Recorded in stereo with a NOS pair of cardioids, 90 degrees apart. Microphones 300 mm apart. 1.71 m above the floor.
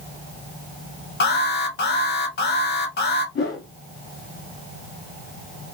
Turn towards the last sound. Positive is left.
turn(degrees=40)